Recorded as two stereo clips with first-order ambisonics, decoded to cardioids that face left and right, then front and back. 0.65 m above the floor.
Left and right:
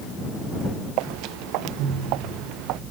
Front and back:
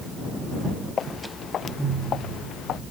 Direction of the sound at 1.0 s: 65° right.